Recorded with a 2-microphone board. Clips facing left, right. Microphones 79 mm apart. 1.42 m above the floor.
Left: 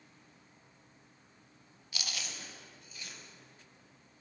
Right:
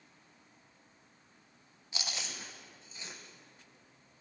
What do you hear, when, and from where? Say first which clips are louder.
1.9 s chewing: right 1 dB; 25° right (ahead or behind), 1.1 m